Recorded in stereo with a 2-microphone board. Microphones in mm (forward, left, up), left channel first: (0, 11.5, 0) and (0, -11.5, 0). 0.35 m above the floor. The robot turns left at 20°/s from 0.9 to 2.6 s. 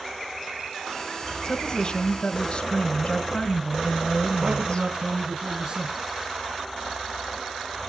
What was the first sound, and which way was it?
A woman speaking, 40° left (ahead or behind).